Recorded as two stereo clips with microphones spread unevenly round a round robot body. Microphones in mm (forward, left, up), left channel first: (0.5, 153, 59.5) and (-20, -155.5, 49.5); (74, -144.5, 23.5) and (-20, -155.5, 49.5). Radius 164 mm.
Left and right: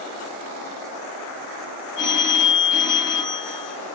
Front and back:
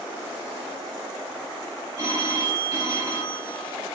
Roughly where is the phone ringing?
Ahead left.